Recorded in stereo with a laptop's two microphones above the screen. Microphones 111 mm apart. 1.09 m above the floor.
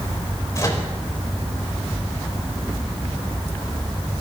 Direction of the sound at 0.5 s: 30° left (ahead or behind).